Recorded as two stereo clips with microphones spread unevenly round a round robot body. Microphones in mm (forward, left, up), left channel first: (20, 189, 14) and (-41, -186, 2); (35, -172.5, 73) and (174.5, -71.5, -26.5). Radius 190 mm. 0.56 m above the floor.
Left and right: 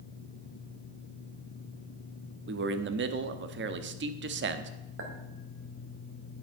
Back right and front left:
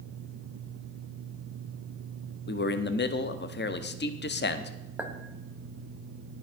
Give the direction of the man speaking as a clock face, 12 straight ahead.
4 o'clock.